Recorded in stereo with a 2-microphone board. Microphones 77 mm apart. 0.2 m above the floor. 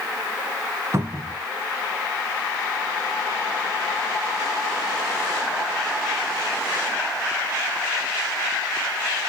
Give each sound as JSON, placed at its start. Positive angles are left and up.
{"t": 0.9, "sound": "a cupboard door", "side_deg": -35, "distance_m": 1.1}